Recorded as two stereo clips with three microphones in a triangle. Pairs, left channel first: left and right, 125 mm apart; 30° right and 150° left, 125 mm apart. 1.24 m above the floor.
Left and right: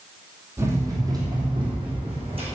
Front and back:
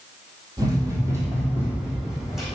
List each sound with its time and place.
0.6 s running footsteps: 155° right, 2.5 m; by 2.5 s 125° right, 4.5 m